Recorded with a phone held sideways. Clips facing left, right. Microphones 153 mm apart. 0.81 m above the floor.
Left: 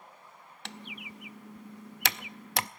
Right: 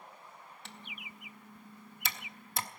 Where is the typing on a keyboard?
75° left (ahead or behind), 0.5 m.